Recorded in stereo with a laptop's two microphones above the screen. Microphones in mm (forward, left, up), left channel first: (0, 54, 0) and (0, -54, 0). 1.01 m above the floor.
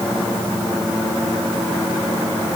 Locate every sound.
Only background noise.